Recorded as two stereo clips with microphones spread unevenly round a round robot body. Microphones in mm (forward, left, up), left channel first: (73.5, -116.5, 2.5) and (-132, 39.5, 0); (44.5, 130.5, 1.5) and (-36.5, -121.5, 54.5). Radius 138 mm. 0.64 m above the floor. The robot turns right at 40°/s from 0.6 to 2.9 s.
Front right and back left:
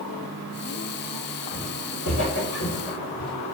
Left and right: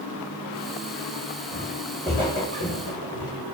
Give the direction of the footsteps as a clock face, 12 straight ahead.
3 o'clock.